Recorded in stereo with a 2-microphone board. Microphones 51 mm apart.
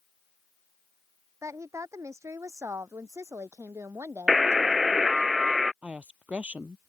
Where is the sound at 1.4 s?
75° right (ahead or behind); by 5.3 s 70° right (ahead or behind).